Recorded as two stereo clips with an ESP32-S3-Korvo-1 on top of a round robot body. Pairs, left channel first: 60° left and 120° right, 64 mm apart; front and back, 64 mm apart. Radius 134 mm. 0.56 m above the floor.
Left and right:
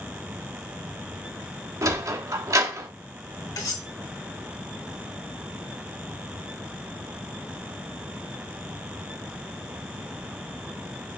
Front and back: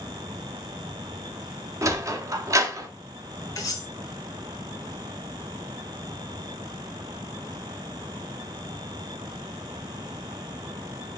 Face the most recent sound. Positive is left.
turn(degrees=35)